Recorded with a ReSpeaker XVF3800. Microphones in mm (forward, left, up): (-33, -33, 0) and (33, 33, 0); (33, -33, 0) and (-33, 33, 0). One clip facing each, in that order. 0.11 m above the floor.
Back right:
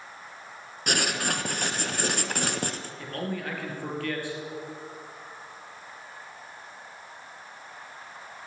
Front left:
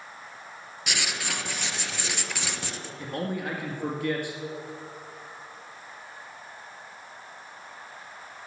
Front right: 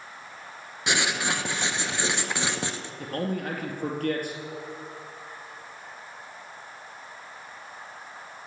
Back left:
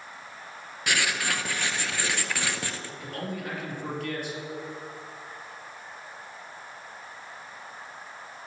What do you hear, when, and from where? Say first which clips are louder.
0.9 s writing: back right 5 dB, front right 2 dB; 110° right, 0.6 m
3.0 s a man speaking: front left 2 dB, front right 6 dB; 25° right, 2 m